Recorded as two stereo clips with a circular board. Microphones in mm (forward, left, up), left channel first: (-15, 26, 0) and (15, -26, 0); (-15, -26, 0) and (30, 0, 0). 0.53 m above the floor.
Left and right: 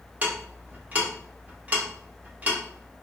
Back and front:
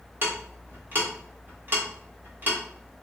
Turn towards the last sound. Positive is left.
turn(degrees=0)